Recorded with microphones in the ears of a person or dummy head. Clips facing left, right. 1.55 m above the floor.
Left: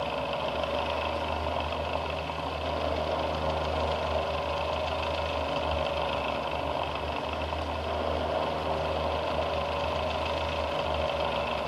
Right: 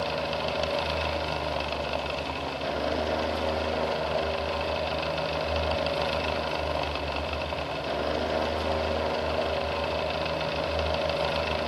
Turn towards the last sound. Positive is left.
No sound to turn to.